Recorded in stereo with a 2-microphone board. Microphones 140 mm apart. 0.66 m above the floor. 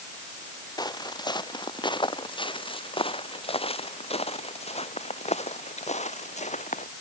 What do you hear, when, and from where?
0.8 s footsteps: 30° left (ahead or behind); by 6.9 s 65° left (ahead or behind)